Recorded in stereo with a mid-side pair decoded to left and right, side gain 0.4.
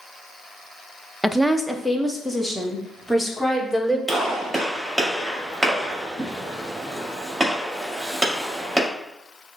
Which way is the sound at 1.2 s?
Straight ahead.